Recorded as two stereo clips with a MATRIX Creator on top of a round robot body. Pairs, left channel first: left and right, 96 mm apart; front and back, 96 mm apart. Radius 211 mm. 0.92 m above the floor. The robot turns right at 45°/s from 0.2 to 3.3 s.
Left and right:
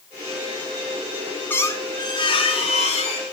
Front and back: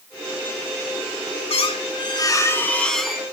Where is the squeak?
20° left, 3.5 m; by 3.2 s 95° left, 3.5 m.